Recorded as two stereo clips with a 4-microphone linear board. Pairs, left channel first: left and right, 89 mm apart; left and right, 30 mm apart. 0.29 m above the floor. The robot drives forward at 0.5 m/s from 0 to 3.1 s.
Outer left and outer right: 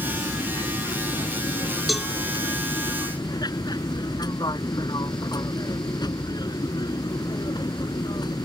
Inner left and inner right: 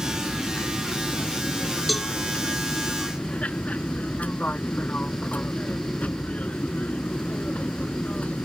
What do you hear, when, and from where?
0.0 s an aircraft: 50° left (ahead or behind)
1.9 s a cowbell: centre (ahead or behind)